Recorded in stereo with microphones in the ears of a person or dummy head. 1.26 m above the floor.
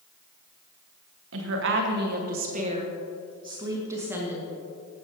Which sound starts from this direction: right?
A woman speaking, at 1.3 s.